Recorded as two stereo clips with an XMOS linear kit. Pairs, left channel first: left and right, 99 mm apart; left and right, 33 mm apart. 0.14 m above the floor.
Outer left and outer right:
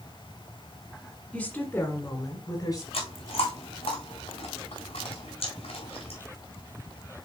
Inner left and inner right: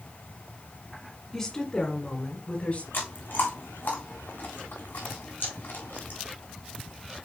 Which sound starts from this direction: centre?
A woman speaking, at 1.3 s.